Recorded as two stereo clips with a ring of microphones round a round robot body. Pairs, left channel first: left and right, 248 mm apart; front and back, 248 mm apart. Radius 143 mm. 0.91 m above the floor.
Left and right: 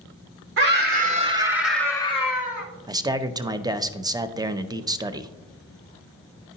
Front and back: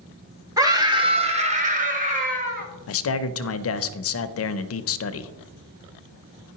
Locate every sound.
0.6 s a scream: 105° right, 1.2 m; by 2.7 s 130° left, 1.2 m
2.9 s a man speaking: 15° right, 0.6 m